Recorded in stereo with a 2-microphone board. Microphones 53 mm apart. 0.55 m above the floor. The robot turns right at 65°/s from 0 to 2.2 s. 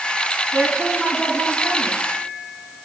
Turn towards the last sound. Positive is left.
turn(degrees=70)